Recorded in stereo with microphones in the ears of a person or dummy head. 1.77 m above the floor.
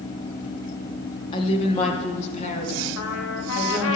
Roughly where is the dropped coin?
No dropped coin in this recording.